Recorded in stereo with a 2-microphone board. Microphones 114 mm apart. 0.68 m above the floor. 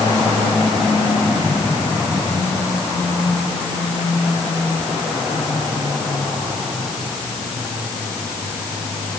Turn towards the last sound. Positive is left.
No sound to turn to.